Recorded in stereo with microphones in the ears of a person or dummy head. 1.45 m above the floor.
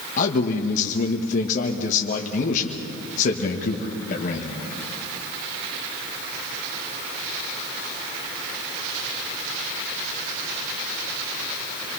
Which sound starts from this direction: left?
A man speaking, at 0.2 s.